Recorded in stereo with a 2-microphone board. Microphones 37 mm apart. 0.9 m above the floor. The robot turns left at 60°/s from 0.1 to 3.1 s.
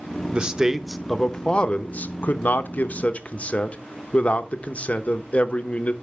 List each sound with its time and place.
0.3 s a man speaking: 140° right, 0.8 m; by 5.9 s 50° left, 0.8 m